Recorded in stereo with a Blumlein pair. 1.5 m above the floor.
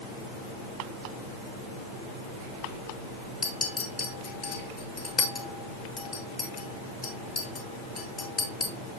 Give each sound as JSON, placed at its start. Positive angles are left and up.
{"t": 3.4, "sound": "a clink", "azimuth_deg": 20, "distance_m": 1.3}